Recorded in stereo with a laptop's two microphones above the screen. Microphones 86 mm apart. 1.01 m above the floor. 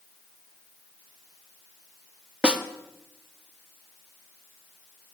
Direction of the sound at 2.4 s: 15° right (ahead or behind).